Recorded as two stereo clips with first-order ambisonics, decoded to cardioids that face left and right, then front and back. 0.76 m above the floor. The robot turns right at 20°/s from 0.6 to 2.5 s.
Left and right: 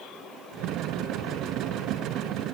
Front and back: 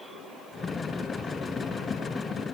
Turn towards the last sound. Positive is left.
No sound to turn to.